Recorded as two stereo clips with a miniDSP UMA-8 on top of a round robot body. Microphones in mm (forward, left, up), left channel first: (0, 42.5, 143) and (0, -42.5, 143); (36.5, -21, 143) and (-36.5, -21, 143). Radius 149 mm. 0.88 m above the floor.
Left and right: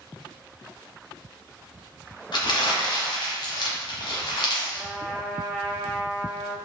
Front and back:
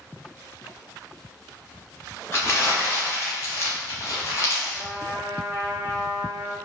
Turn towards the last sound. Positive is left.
turn(degrees=-145)